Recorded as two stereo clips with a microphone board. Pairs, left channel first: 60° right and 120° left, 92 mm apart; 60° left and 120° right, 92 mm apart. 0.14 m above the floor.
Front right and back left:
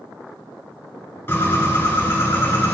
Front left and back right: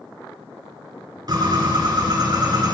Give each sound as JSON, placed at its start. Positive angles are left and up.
{"t": 1.3, "sound": "a bird", "azimuth_deg": -115, "distance_m": 2.5}